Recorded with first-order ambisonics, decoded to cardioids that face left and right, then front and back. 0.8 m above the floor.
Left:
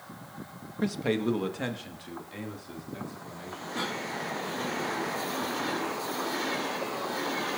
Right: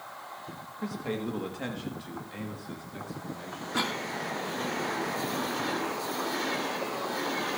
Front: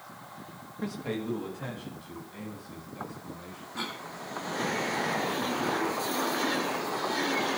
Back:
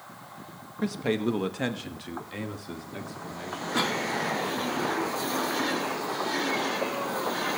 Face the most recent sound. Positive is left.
turn(degrees=-145)